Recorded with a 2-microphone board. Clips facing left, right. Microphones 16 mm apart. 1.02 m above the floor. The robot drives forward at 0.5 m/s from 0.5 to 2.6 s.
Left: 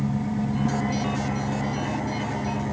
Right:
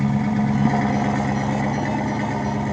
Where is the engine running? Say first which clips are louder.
Right 6 dB; 55° right (ahead or behind), 1.4 m; by 2.7 s 30° right (ahead or behind), 2 m.